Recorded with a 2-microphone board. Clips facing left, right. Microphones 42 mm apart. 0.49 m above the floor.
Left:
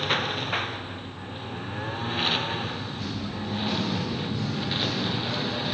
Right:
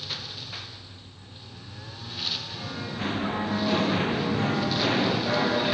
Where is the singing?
35° right (ahead or behind).